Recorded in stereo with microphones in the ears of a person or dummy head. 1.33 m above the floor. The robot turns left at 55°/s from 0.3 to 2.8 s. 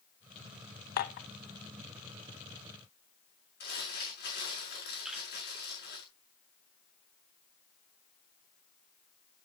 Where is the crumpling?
55° left (ahead or behind), 6 m.